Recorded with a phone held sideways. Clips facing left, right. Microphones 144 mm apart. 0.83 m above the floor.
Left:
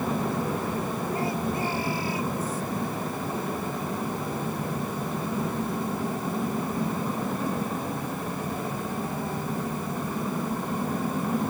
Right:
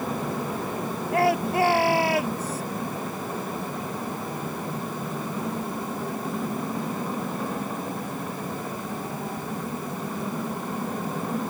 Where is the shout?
80° right; by 2.6 s 75° right (ahead or behind).